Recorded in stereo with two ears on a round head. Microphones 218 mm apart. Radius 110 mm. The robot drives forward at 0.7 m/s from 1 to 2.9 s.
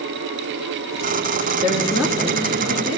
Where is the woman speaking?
5° right (ahead or behind), 1.4 m.